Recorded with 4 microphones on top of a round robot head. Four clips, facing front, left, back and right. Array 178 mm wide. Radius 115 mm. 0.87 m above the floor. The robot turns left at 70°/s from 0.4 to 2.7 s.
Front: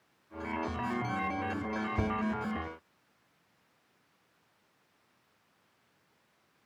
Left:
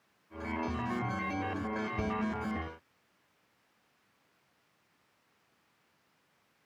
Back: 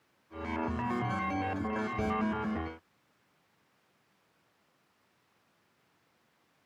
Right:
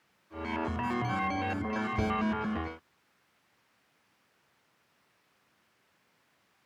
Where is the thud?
20° right, 2 m; by 2.2 s 35° right, 2 m.